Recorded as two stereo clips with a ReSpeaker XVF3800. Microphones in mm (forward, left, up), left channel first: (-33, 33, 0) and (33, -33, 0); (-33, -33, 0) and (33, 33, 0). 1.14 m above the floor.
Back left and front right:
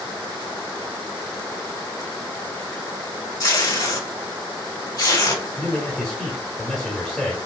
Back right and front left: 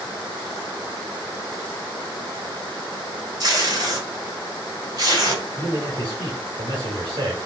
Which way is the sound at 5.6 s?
55° left.